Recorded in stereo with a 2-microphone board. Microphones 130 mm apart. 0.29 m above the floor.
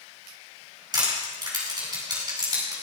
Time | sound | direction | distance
0.9 | crushing | 35° right (ahead or behind) | 3 m